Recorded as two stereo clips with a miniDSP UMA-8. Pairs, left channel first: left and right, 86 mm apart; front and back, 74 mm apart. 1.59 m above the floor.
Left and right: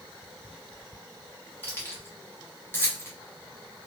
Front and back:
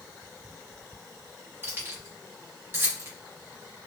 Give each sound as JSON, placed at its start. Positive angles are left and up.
{"t": 1.6, "sound": "keys jangling", "azimuth_deg": 140, "distance_m": 0.9}